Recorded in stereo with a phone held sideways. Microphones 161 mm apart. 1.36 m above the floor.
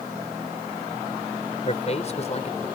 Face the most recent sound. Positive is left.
turn(degrees=45)  # may be behind; listen again after turning